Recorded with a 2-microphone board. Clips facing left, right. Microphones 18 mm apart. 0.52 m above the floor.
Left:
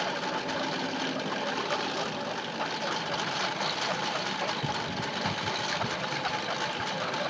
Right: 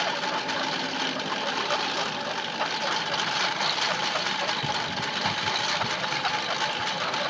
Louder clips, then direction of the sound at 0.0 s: Right 4 dB; 35° right (ahead or behind).